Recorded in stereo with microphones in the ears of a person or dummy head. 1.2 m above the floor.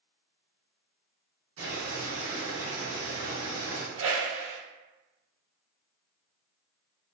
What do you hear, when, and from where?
1.6 s boiling: 70° right (ahead or behind), 1.4 m
4.0 s a whoosh: 75° right (ahead or behind), 1.3 m